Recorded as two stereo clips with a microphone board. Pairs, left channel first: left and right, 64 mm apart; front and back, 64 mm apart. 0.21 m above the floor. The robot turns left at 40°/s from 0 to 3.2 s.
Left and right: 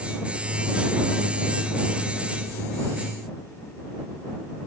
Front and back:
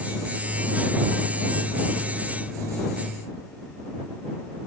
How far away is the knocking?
No knocking in this recording.